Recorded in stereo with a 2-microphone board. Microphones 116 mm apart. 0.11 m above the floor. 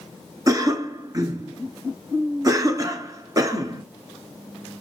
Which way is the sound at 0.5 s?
30° right (ahead or behind).